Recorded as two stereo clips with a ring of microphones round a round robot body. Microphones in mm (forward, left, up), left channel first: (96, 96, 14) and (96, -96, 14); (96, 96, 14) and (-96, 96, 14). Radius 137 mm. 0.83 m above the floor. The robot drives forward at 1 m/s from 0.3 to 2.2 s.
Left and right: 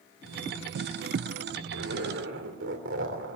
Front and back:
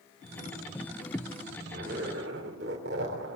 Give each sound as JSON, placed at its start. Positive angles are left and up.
{"t": 1.7, "sound": "a zipper", "azimuth_deg": -120, "distance_m": 2.5}